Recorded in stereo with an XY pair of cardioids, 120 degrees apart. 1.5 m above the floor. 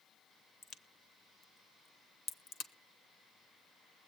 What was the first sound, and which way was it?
A crack, 65° left.